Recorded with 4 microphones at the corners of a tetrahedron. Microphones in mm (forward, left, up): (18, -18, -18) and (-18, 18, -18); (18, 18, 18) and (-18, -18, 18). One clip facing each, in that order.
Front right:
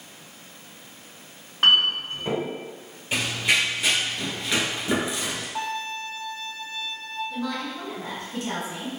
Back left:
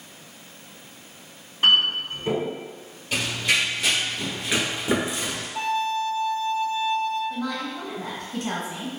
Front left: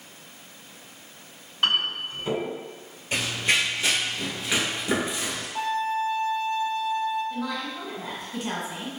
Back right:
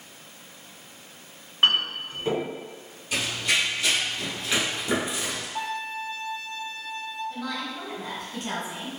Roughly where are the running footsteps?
Ahead.